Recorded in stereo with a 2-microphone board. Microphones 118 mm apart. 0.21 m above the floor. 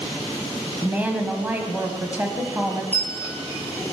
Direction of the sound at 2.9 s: 15° left (ahead or behind).